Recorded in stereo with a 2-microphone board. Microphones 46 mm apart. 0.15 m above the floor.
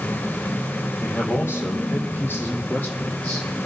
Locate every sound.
1.0 s a man speaking: 65° left (ahead or behind), 5 m; by 3.5 s 25° left (ahead or behind), 4.5 m